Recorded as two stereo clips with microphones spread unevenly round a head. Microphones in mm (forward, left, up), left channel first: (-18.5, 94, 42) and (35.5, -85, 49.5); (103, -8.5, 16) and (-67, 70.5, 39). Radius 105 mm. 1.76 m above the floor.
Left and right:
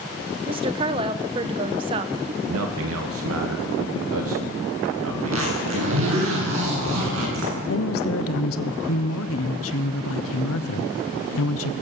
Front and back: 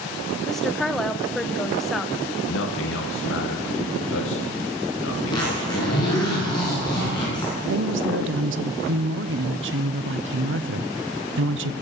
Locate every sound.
0.5 s a woman speaking: 120° right, 0.8 m
2.4 s a man speaking: 60° right, 2.0 m
5.2 s a zipper: 100° right, 8 m
7.7 s a woman speaking: 130° left, 1.1 m